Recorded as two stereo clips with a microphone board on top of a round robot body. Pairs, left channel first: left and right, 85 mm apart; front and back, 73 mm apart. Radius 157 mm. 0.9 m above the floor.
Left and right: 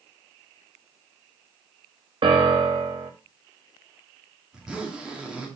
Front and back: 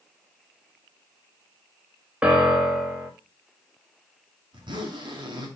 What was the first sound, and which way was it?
A piano, 105° right.